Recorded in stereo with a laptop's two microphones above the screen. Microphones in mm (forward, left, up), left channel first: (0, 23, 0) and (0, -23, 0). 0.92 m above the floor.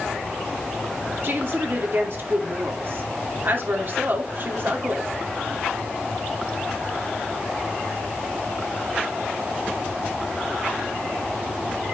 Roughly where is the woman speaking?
Right.